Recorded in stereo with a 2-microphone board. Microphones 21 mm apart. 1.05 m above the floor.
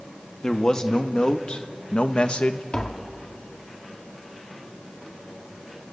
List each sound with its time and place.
0.4 s a man speaking: 35° left (ahead or behind), 1.9 m; by 2.6 s 65° left (ahead or behind), 1.1 m
2.7 s tapping: 45° left (ahead or behind), 1.8 m